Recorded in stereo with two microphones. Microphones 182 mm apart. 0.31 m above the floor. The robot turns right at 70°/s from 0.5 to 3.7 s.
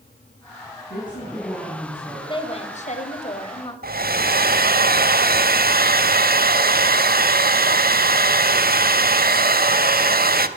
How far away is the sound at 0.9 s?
About 3 m.